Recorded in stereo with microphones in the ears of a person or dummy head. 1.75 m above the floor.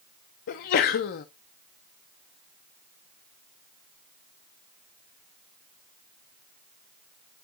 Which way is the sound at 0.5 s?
35° left (ahead or behind).